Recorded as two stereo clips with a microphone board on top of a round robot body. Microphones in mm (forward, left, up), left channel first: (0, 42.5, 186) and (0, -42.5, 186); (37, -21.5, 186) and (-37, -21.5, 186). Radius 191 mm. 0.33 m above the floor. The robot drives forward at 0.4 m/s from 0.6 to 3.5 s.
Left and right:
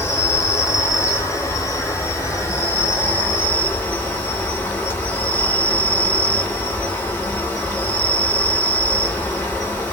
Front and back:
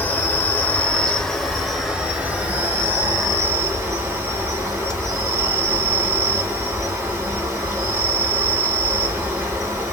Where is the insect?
55° left, 1.2 m; by 9.9 s 145° left, 1.4 m.